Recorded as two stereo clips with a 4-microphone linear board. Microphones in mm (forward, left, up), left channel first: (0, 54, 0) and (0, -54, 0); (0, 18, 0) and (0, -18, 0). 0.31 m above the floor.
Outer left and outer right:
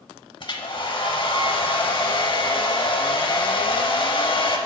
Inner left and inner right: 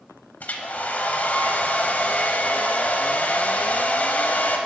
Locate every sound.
0.4 s a hair dryer: 50° left (ahead or behind), 0.7 m